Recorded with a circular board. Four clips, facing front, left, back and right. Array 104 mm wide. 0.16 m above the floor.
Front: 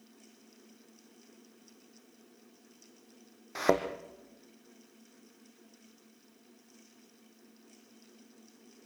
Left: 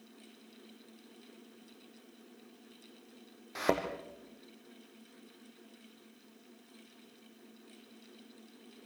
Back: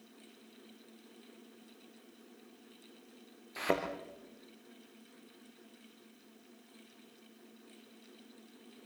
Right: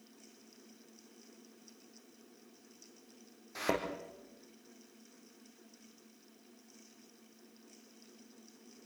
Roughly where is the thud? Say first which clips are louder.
Left 3 dB, front 6 dB; ahead.